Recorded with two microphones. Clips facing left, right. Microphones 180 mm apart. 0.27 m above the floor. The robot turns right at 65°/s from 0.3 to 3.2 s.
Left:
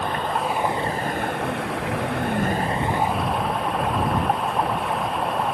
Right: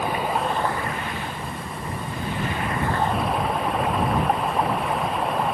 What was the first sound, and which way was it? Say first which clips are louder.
Running water: right 1 dB; 5° right.